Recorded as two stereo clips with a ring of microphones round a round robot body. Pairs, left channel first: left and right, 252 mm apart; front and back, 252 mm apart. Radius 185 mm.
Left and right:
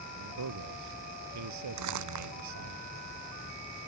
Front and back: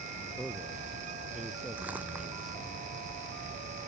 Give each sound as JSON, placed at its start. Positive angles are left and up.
{"t": 0.2, "sound": "a man speaking", "azimuth_deg": -90}
{"t": 1.8, "sound": "crumpling", "azimuth_deg": -95}